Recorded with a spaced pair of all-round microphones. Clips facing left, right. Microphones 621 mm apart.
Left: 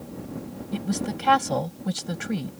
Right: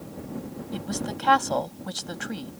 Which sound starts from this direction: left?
A woman speaking, at 0.7 s.